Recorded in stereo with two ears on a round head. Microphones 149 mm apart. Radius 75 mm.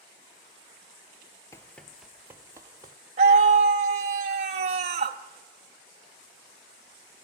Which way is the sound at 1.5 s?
20° left (ahead or behind).